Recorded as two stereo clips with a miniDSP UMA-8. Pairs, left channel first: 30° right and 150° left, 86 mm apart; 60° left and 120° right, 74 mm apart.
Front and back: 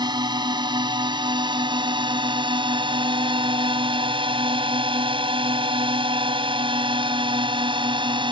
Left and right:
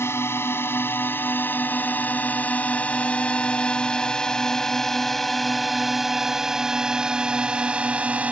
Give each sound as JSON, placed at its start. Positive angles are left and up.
{"t": 0.0, "sound": "a drone", "azimuth_deg": 115}